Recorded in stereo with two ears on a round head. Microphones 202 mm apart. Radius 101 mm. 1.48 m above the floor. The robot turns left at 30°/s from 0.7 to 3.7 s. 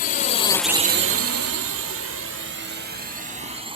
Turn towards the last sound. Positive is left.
turn(degrees=-25)  # may be behind; listen again after turning